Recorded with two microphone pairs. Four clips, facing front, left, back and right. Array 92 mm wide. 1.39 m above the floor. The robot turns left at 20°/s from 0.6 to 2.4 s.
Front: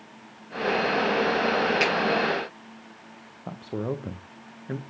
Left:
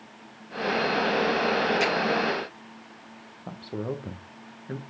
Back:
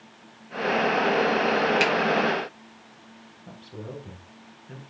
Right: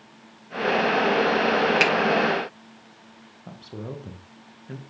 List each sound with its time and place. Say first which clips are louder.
1.8 s a finger snap: right 3 dB, back 1 dB; 90° right, 4 m; by 1.9 s 95° right, 4 m
3.5 s a man speaking: left 4 dB, front 9 dB; 20° left, 1.4 m